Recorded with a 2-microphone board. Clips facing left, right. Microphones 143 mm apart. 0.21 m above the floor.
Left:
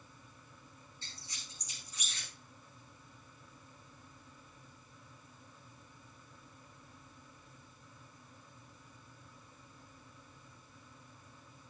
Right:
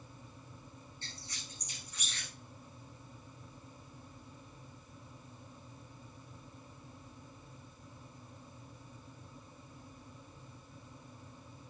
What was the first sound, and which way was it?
A squeak, 60° right (ahead or behind).